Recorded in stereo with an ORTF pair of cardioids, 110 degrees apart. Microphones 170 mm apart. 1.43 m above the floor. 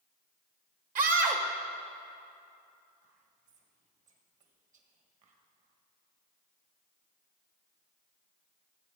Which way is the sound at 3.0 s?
50° right.